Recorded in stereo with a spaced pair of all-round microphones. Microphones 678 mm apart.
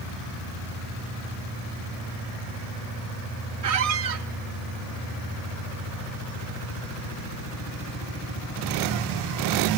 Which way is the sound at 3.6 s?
60° right (ahead or behind).